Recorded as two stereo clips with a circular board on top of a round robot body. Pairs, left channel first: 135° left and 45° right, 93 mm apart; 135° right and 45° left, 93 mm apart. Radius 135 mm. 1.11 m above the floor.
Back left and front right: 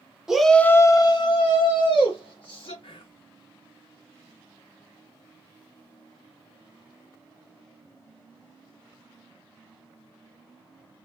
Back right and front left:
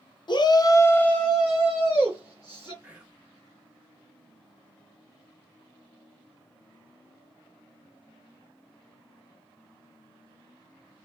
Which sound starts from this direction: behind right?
A shout, at 0.3 s.